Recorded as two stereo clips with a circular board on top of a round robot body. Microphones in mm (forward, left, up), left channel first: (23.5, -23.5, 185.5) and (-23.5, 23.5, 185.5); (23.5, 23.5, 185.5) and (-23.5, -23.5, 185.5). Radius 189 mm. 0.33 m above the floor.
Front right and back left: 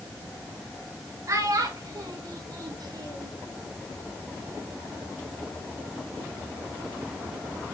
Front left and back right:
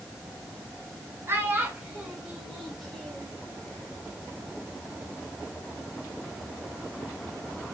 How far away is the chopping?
No chopping in this recording.